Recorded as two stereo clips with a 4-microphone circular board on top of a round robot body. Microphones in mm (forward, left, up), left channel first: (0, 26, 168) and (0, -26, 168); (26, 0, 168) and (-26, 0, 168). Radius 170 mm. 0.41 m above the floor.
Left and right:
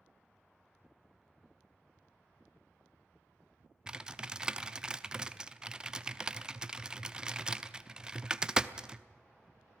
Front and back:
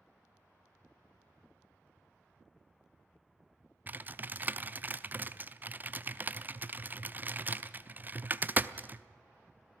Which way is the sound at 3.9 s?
155° right.